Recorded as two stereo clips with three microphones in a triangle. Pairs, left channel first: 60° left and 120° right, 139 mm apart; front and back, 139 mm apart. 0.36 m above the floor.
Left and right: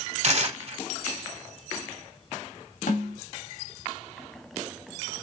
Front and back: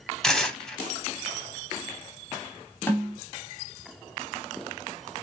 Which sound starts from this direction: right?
Tearing paper, at 0.2 s.